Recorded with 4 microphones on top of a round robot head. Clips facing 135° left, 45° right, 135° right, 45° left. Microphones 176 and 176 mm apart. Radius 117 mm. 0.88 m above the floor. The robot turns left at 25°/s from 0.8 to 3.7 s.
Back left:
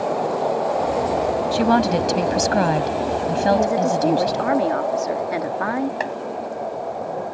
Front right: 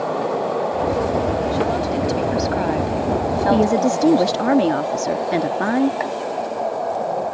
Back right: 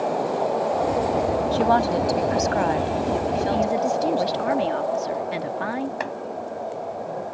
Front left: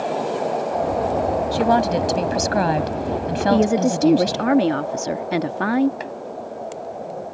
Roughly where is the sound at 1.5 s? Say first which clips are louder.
Back left 2 dB, front left 2 dB; behind left.